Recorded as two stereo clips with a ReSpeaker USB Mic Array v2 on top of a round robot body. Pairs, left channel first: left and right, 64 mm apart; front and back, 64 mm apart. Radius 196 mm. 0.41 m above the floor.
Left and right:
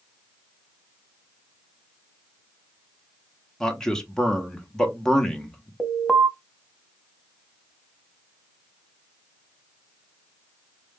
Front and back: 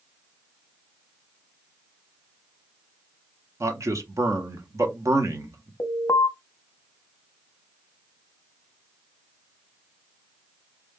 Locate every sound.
3.6 s a man speaking: 170° left, 1.3 m
5.8 s an alarm: 5° left, 1.1 m